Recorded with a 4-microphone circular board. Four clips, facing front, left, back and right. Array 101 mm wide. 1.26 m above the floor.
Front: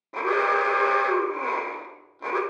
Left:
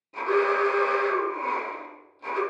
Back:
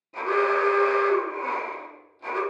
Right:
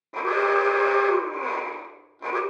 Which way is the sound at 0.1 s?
45° right.